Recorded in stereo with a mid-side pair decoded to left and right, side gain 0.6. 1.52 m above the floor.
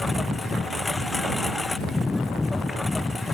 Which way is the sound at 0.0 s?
10° left.